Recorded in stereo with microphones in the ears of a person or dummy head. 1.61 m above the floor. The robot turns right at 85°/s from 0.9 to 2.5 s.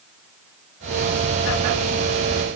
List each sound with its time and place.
Only background noise.